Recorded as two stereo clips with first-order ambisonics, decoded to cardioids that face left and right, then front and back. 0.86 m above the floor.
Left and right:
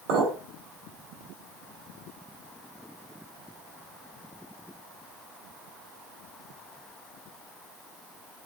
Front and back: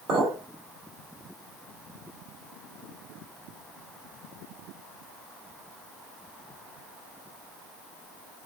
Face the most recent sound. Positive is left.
turn(degrees=-125)